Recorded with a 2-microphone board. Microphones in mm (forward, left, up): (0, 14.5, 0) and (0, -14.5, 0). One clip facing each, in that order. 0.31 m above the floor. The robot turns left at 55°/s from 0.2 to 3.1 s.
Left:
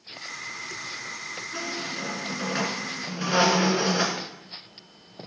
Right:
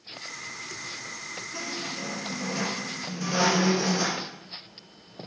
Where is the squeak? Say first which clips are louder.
Left 2 dB; 135° left, 2 m; by 4.2 s 45° left, 2 m.